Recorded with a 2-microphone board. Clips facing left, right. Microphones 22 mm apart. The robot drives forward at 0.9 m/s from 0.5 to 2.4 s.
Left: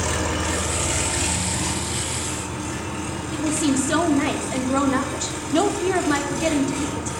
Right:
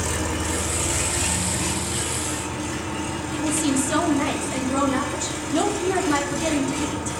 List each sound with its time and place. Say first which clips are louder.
0.0 s an engine running: left 2 dB; 20° left (ahead or behind), 1.0 m; by 7.2 s 5° left (ahead or behind), 2.5 m
3.3 s a woman speaking: left 1 dB; 25° left (ahead or behind), 1.8 m